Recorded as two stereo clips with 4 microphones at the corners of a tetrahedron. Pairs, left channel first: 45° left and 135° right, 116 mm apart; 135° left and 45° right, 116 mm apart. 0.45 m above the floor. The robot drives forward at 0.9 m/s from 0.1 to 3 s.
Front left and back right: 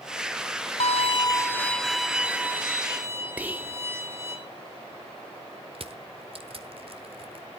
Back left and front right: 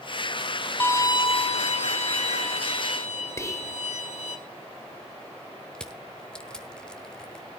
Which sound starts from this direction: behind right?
Crushing, at 5.8 s.